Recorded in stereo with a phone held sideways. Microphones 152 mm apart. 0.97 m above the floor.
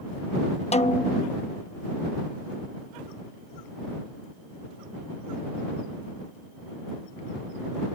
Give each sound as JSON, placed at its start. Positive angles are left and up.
{"t": 0.7, "sound": "a snare drum", "side_deg": 45}